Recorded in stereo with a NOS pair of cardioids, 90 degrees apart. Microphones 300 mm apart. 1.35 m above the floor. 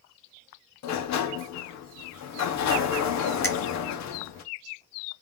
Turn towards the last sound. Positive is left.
turn(degrees=10)